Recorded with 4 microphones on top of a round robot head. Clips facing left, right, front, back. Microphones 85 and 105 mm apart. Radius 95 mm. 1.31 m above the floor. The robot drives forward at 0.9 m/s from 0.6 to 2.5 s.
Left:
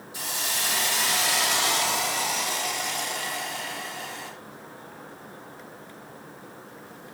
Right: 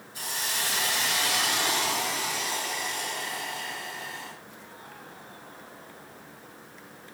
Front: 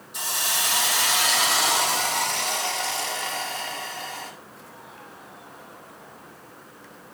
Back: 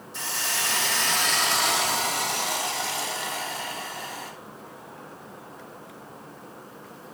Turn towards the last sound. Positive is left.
turn(degrees=100)